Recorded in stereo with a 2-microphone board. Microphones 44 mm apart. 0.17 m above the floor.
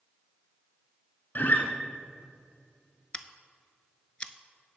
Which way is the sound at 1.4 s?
55° left (ahead or behind).